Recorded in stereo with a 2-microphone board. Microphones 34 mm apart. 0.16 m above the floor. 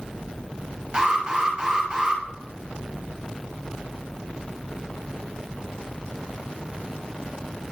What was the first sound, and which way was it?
An alarm, 20° right (ahead or behind).